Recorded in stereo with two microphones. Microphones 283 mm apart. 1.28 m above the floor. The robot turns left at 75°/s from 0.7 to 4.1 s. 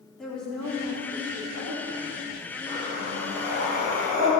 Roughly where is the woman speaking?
Ahead.